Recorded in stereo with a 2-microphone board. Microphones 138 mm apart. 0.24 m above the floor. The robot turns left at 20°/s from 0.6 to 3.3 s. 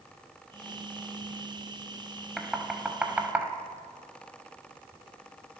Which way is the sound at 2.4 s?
5° right (ahead or behind).